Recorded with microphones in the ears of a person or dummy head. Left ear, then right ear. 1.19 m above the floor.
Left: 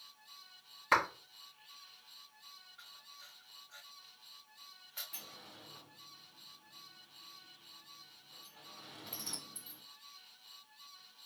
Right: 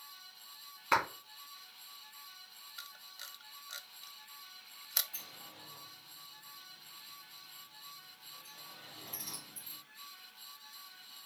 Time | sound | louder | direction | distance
0.9 | a clap | left 1 dB | 5° left (ahead or behind) | 1.6 m
2.8 | a camera shutter | right 9 dB | 75° right (ahead or behind) | 0.5 m
5.1 | a sliding door | right 2 dB | 50° left (ahead or behind) | 2 m